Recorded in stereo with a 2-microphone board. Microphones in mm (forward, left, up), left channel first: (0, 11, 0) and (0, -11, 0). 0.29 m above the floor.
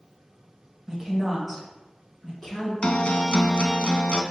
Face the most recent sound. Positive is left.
turn(degrees=60)  # may be behind; listen again after turning